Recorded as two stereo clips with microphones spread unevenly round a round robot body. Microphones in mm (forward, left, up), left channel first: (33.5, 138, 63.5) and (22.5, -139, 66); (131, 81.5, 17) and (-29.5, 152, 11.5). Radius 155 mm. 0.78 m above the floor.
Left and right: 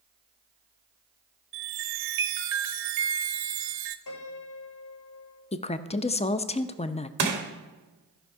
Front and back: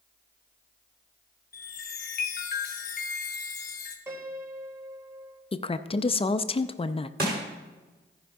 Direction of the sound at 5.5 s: 30° left.